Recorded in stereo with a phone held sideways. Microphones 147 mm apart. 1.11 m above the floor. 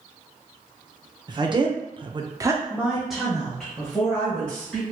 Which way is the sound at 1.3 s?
30° right (ahead or behind).